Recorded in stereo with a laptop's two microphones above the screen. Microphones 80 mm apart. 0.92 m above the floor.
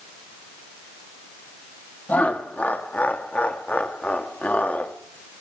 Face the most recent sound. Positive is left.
turn(degrees=20)  # may be behind; listen again after turning